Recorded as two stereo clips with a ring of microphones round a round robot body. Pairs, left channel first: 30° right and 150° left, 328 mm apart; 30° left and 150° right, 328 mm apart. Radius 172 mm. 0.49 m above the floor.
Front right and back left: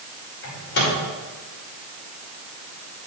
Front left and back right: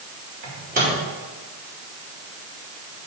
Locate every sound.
0.4 s a microwave: 85° right, 3 m